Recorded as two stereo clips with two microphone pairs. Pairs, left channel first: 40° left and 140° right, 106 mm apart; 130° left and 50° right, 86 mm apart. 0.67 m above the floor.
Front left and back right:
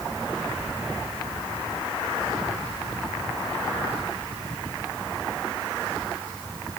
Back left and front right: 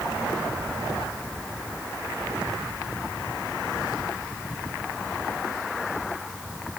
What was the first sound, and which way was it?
Only background noise.